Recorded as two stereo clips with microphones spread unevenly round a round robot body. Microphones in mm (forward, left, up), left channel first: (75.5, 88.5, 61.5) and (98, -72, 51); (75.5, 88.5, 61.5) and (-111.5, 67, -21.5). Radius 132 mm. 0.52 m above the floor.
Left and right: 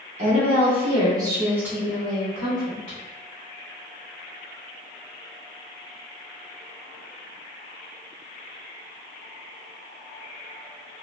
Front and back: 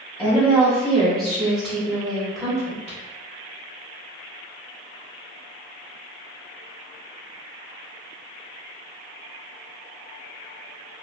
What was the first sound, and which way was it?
A woman speaking, 105° right.